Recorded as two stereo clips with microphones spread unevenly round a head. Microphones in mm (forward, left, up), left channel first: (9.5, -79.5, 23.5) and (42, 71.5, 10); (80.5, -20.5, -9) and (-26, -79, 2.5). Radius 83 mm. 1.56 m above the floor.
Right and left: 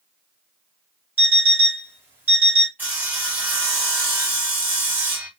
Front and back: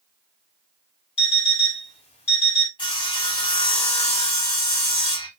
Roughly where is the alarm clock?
Ahead.